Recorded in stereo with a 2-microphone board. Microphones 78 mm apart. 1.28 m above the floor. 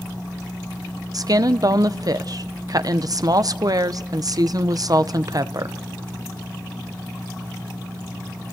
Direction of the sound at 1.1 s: 55° right (ahead or behind).